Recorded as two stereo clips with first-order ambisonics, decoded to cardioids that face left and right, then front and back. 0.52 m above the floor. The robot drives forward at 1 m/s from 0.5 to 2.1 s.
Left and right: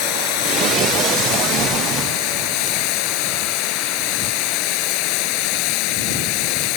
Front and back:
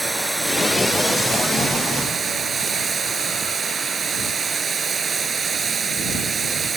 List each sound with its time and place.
0.0 s running water: 100° left; by 6.8 s 110° left